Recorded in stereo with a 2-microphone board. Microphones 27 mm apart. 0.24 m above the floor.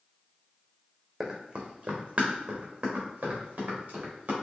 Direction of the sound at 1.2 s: 20° right (ahead or behind).